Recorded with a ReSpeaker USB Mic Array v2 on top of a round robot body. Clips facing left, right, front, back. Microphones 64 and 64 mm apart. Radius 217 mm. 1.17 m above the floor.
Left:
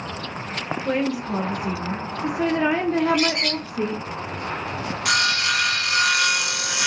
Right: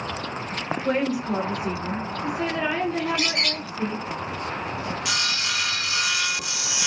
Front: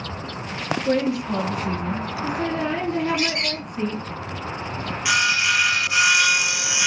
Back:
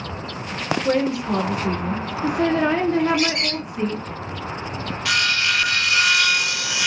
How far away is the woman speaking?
About 1.1 m.